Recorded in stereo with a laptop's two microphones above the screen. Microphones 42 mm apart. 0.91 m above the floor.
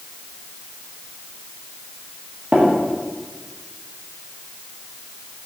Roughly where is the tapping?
Right.